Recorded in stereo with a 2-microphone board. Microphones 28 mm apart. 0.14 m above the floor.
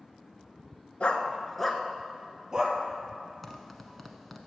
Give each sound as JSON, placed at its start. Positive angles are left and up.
{"t": 1.0, "sound": "a dog barking", "side_deg": 45, "distance_m": 0.9}
{"t": 3.4, "sound": "a zipper", "side_deg": 5, "distance_m": 1.0}